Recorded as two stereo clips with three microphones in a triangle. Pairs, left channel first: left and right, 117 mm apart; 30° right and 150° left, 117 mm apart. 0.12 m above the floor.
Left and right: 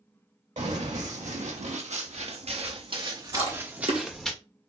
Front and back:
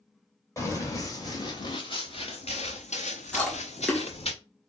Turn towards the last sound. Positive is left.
turn(degrees=-110)